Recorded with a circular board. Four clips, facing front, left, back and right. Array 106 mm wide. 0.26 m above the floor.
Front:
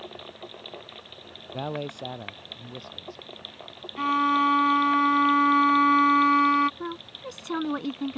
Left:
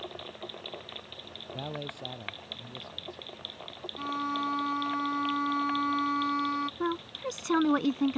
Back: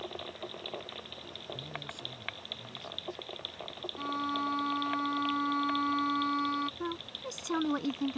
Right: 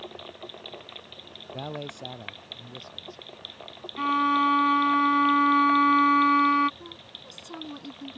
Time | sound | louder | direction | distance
1.5 | a man speaking | right 3 dB, front 12 dB | 10° right | ?
4.0 | a violin | right 9 dB, front 12 dB | 40° right | ?
6.8 | a woman speaking | left 14 dB, front 3 dB | 80° left | ?